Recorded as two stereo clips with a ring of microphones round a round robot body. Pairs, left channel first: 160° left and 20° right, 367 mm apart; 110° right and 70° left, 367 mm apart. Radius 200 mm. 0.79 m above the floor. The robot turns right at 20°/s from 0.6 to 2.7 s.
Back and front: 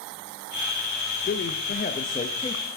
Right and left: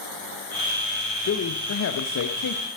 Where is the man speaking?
155° right, 1.1 m; by 2.7 s 125° right, 1.1 m.